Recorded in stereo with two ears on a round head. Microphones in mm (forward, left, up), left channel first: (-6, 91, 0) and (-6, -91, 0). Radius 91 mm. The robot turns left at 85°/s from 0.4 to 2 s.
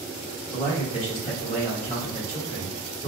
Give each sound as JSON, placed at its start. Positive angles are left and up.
{"t": 0.5, "sound": "a man speaking", "azimuth_deg": 170, "distance_m": 1.4}